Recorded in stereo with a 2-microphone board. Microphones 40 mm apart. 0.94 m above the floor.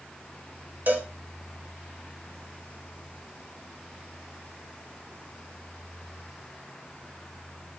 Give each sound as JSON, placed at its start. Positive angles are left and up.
{"t": 0.9, "sound": "a cowbell", "side_deg": -50, "distance_m": 0.9}